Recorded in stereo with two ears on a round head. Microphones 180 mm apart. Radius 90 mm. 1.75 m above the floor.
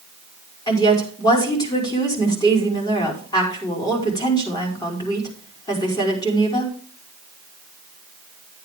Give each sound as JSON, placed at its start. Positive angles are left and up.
{"t": 0.7, "sound": "a woman speaking", "side_deg": 20, "distance_m": 4.5}